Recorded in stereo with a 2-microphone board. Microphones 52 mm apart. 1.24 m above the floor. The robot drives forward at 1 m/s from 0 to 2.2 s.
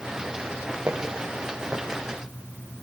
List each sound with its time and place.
0.9 s footsteps: 20° right (ahead or behind), 3.5 m; by 2.0 s 5° right (ahead or behind), 4.5 m